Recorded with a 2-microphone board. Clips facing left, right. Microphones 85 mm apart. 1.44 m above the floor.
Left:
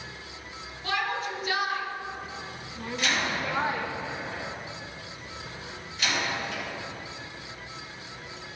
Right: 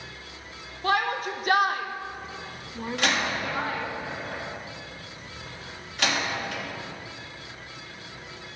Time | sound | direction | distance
0.8 | a shout | 50° right (ahead or behind) | 1.8 m
3.0 | a door slam | 70° right (ahead or behind) | 2.5 m